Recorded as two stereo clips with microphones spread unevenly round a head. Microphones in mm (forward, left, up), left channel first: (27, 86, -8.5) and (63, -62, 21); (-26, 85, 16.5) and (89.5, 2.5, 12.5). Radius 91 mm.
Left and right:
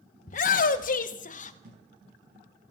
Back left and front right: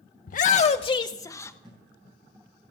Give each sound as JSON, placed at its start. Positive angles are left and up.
{"t": 0.3, "sound": "a shout", "azimuth_deg": 135, "distance_m": 0.6}
{"t": 1.6, "sound": "a thud", "azimuth_deg": -125, "distance_m": 7.5}